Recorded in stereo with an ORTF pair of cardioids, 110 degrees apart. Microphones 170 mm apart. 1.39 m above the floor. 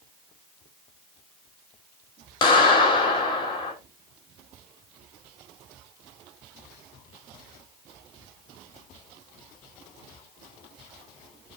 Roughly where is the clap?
Ahead left.